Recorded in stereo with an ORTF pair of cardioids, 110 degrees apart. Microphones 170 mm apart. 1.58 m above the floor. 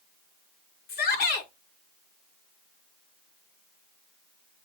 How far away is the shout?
About 5 m.